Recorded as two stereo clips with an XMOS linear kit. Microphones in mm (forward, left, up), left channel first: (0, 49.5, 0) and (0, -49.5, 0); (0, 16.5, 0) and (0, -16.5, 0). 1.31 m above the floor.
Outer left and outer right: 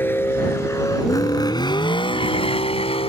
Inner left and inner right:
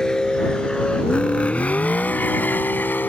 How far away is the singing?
No singing in this recording.